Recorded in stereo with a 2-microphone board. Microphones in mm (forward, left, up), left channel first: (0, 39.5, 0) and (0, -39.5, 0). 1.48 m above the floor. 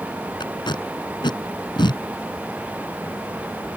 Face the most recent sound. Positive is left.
turn(degrees=75)  # may be behind; listen again after turning